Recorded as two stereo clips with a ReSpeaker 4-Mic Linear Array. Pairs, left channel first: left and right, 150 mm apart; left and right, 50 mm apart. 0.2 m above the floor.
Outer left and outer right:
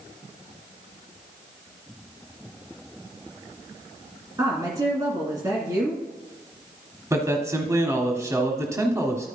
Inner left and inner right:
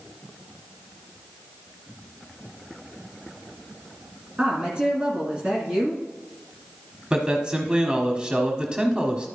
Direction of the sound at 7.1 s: 20° right (ahead or behind).